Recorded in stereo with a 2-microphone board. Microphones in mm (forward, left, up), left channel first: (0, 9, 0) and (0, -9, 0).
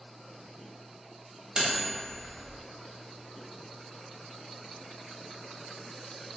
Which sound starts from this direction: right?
Cutlery clinking, at 1.6 s.